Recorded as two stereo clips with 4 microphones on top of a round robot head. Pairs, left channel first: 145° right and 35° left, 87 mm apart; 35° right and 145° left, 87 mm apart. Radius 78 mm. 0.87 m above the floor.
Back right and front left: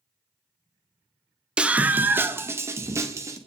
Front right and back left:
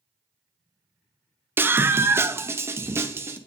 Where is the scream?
105° left, 1.0 m; by 3.4 s 85° left, 2 m.